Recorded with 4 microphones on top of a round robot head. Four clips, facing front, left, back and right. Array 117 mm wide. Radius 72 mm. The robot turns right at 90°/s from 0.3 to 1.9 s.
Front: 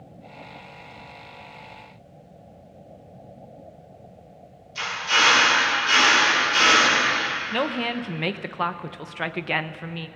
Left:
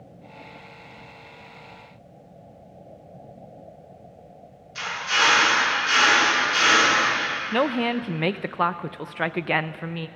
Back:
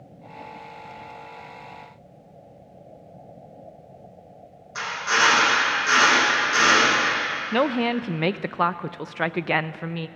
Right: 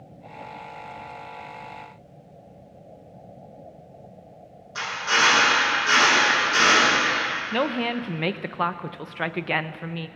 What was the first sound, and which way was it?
A drill, 145° right.